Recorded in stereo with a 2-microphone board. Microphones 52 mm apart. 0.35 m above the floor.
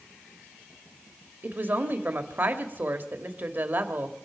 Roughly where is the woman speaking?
Right.